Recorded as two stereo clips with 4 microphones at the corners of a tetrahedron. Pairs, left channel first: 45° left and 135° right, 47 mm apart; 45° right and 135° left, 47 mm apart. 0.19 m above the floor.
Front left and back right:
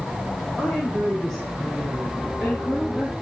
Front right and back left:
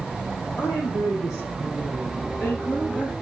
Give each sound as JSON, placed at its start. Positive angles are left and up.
{"t": 0.6, "sound": "a woman speaking", "azimuth_deg": -40, "distance_m": 7.0}